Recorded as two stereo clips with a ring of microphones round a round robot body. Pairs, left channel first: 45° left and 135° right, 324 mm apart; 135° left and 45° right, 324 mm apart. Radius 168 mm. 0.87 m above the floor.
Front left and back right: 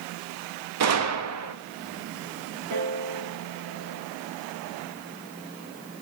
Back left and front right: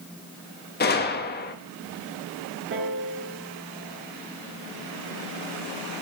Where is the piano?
100° right, 4 m.